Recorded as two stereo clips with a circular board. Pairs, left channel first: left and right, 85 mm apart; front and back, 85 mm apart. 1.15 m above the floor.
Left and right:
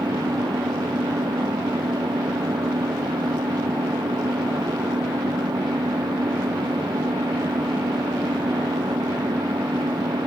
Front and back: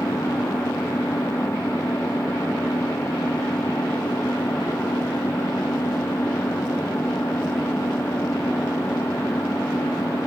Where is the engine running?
60° right.